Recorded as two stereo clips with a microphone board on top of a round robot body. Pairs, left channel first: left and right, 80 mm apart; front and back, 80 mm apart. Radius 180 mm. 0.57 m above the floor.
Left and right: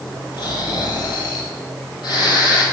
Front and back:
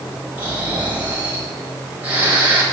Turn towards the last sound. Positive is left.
turn(degrees=110)